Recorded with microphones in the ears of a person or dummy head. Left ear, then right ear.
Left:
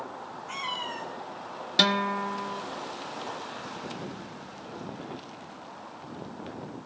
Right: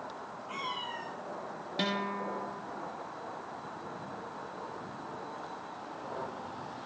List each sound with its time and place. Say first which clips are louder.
0.5 s a cat meowing: left 4 dB; 60° left (ahead or behind), 4 m
1.8 s a guitar: left 10 dB; 45° left (ahead or behind), 0.6 m